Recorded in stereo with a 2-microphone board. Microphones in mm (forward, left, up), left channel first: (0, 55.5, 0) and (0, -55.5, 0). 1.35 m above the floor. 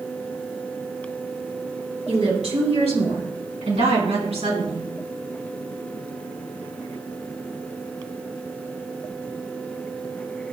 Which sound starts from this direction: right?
A woman speaking, at 2.1 s.